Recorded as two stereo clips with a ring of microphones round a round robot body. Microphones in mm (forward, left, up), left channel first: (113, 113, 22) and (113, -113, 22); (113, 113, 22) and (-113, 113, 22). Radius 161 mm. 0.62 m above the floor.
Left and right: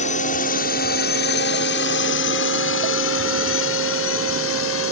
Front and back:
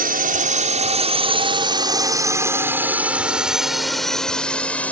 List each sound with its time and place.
0.0 s a drone: 145° left; by 4.9 s 85° left